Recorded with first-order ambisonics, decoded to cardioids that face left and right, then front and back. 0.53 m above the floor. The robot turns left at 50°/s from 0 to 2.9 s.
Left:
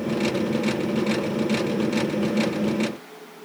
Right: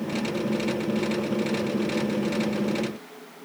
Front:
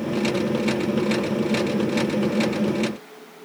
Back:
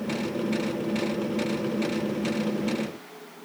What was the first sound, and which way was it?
Only background noise.